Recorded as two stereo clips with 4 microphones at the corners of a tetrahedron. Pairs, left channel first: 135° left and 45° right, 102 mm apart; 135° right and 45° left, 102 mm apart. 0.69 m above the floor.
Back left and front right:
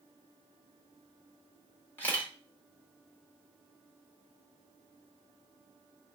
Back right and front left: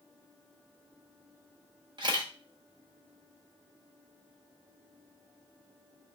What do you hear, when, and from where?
2.0 s a camera shutter: 70° left, 0.9 m